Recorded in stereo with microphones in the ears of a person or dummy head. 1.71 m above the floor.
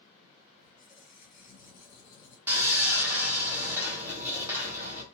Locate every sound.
0.6 s a squeak: 40° left (ahead or behind), 1.2 m
2.5 s sawing: 15° right (ahead or behind), 0.9 m